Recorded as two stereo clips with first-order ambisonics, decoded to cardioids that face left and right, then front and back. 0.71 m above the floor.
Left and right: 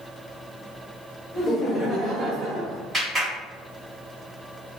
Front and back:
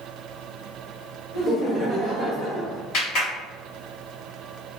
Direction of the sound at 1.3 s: 90° left.